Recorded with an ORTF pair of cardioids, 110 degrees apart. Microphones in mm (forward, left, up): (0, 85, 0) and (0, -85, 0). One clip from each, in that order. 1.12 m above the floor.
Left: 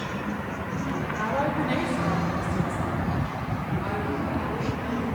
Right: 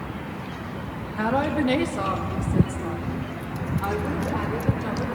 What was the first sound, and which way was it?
A woman speaking, 65° right.